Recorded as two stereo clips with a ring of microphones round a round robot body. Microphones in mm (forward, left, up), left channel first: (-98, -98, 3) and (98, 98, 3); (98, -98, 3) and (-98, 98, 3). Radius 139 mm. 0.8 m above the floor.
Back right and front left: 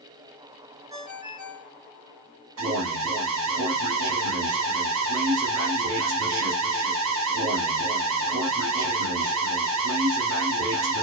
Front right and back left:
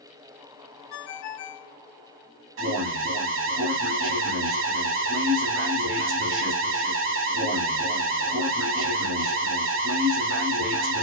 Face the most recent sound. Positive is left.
turn(degrees=90)